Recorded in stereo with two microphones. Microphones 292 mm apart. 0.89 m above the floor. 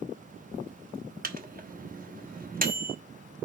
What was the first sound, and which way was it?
A microwave, 30° right (ahead or behind).